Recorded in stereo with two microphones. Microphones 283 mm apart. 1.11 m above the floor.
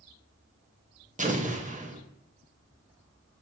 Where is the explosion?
25° right (ahead or behind), 0.9 m.